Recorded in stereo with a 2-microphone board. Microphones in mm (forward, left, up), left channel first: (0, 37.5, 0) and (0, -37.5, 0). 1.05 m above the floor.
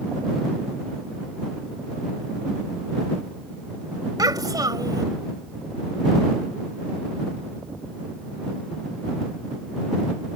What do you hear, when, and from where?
4.2 s a child speaking: 60° right (ahead or behind)